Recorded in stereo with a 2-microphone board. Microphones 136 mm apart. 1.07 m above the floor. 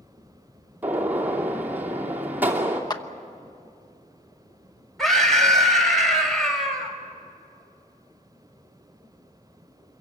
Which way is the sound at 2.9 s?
30° left (ahead or behind).